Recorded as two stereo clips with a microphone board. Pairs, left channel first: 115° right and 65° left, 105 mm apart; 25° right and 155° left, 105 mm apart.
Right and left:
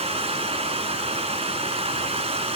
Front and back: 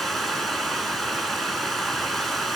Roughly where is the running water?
Ahead left.